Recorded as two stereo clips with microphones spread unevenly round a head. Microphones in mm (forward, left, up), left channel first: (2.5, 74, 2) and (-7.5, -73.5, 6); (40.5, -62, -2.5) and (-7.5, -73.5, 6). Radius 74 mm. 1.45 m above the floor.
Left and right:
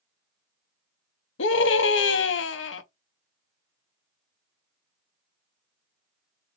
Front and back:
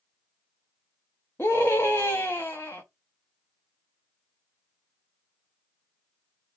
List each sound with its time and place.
1.4 s a scream: 90° left, 0.6 m